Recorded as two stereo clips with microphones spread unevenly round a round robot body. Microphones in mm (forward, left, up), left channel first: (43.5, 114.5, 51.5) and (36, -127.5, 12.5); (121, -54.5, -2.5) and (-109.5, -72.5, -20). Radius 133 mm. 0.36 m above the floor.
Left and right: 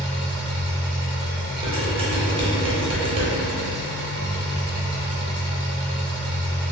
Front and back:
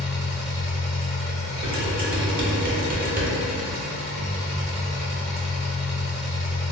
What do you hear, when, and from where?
0.0 s an engine running: 95° right, 1.1 m
1.6 s dishes clattering: 145° right, 0.7 m